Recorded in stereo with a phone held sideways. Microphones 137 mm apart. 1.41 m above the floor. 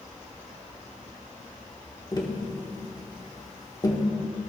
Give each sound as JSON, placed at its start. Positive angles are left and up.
{"t": 2.1, "sound": "tapping", "side_deg": 30, "distance_m": 1.1}